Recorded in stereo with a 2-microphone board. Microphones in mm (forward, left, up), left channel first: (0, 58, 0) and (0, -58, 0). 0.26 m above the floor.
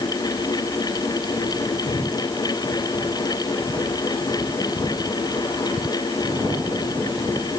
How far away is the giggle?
No giggle in this recording.